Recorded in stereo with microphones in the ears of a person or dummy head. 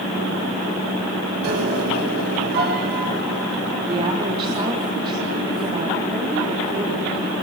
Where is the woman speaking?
25° right (ahead or behind), 4.5 m.